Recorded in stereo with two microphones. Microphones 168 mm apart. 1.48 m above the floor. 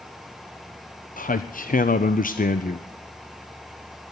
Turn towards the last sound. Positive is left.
turn(degrees=55)  # may be behind; listen again after turning